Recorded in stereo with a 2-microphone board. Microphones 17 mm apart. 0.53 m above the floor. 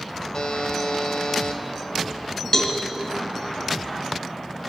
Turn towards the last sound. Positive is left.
turn(degrees=45)  # may be behind; listen again after turning